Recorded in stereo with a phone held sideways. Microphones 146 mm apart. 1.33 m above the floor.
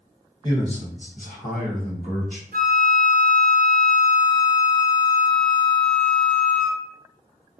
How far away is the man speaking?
About 1.2 m.